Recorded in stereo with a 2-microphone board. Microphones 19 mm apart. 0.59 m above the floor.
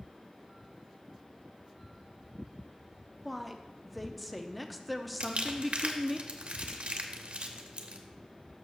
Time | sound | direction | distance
3.2 | a woman speaking | centre (ahead or behind) | 0.6 m
5.2 | crumpling | 70° right (ahead or behind) | 0.8 m